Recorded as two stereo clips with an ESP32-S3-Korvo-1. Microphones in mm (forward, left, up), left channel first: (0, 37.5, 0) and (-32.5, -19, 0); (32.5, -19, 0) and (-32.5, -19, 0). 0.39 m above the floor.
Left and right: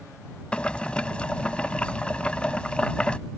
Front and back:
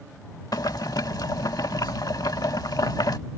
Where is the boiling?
10° right.